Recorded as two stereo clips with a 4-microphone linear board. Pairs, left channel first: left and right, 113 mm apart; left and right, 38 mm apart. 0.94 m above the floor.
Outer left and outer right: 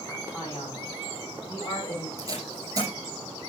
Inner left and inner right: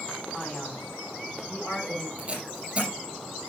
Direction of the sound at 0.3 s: 35° left (ahead or behind).